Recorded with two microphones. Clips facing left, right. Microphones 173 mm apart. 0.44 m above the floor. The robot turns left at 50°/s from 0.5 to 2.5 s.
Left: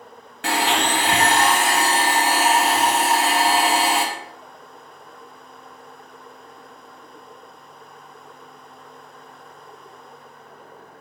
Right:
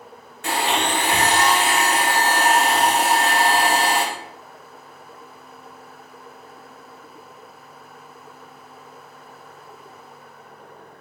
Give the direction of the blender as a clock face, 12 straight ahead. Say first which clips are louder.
Left 1 dB; 9 o'clock.